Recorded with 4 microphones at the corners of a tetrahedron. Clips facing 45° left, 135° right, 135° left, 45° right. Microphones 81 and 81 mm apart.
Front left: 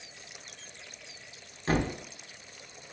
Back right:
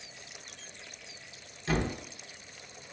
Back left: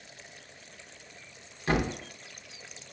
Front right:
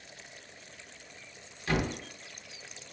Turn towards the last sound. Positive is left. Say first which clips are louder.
# front left 2 dB, back left 3 dB
turn(degrees=80)